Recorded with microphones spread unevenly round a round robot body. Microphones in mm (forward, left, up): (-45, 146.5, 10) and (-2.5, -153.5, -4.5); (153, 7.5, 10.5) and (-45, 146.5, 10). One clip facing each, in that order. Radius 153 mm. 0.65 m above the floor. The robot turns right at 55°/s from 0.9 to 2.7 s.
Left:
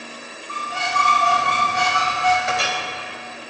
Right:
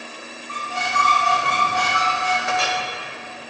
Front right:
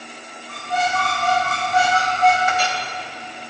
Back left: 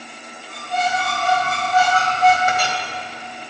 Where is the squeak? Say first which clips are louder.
Left 1 dB, even; 20° right, 2.5 m; by 2.4 s 65° left, 2.5 m.